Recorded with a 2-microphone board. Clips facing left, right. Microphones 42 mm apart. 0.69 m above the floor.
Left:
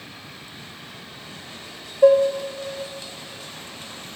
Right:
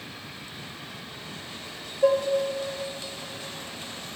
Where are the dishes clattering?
55° left (ahead or behind), 0.6 m.